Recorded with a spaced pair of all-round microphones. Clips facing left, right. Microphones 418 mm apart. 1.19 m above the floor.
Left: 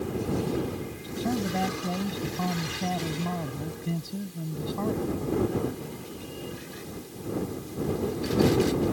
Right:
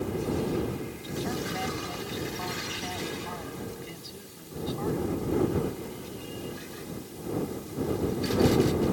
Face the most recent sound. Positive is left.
turn(degrees=80)